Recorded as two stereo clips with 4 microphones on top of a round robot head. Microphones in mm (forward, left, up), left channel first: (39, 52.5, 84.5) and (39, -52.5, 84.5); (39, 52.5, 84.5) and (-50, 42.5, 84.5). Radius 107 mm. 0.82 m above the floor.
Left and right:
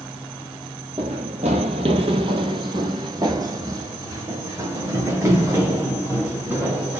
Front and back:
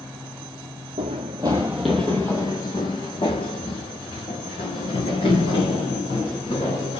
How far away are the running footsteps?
About 1.0 m.